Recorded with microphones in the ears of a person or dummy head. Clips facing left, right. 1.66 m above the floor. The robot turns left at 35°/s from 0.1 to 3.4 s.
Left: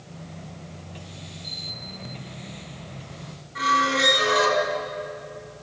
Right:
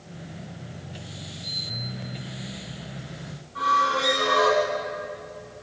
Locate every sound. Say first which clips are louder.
1.4 s a camera shutter: right 1 dB; 55° right (ahead or behind), 3 m; by 1.7 s 45° right (ahead or behind), 3 m
3.5 s a squeak: left 2 dB; 25° left (ahead or behind), 2.0 m